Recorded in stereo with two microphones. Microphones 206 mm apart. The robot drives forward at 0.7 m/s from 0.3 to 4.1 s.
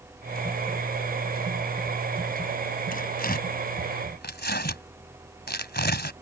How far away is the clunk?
No clunk in this recording.